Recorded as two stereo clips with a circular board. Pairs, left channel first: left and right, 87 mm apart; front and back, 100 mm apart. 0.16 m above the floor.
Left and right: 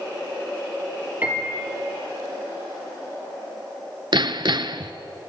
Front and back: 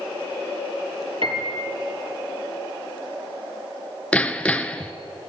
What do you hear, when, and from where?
1.2 s a piano: 160° right, 3.5 m
4.1 s hammering: 80° right, 0.9 m